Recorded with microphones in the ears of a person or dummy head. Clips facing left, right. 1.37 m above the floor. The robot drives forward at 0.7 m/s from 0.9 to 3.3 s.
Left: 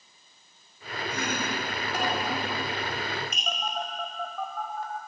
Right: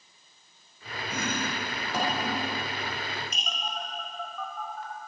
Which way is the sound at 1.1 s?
80° right.